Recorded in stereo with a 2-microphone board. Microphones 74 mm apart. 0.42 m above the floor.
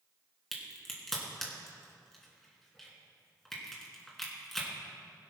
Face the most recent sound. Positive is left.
turn(degrees=5)  # may be behind; listen again after turning